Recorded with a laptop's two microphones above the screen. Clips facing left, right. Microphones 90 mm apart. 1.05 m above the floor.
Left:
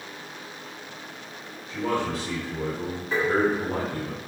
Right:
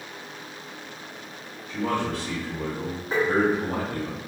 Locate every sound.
1.7 s a man speaking: 80° right, 1.9 m
3.1 s tapping: 45° right (ahead or behind), 1.4 m